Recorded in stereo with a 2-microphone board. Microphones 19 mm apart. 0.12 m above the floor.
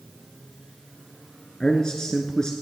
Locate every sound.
1.6 s a man speaking: 40° left (ahead or behind), 1.6 m